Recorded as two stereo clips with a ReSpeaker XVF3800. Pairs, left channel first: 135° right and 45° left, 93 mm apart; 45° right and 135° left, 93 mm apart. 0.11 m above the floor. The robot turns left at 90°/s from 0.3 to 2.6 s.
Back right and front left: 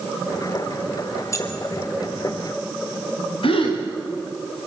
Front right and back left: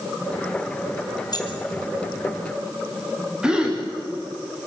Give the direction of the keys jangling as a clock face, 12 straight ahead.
3 o'clock.